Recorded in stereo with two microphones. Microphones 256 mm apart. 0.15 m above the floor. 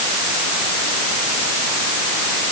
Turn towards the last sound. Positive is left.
No sound to turn to.